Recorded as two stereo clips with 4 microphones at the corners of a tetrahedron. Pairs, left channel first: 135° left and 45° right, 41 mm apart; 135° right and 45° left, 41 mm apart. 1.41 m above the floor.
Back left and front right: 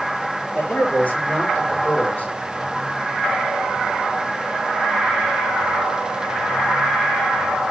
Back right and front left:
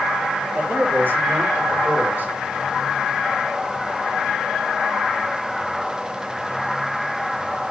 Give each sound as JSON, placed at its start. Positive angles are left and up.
{"t": 0.5, "sound": "a man speaking", "azimuth_deg": 90, "distance_m": 5.0}